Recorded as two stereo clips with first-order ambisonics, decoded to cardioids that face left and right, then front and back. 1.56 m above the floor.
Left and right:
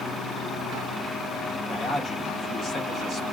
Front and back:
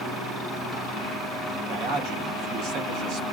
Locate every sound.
1.7 s a man speaking: 160° left, 1.8 m